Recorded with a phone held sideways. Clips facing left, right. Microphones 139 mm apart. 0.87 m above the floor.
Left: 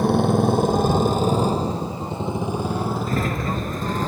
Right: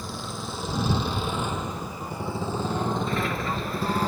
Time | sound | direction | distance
0.0 | a motorcycle | 60° left (ahead or behind) | ?
3.1 | a sliding door | 40° left (ahead or behind) | ?